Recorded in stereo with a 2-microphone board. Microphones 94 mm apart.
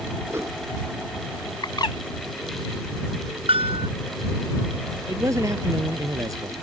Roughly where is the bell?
Right.